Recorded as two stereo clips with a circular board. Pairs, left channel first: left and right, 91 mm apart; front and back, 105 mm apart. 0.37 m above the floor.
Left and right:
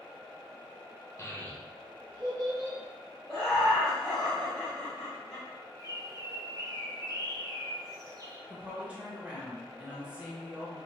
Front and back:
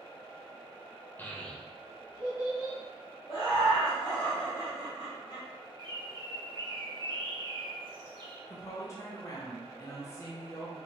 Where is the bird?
135° right, 0.6 m.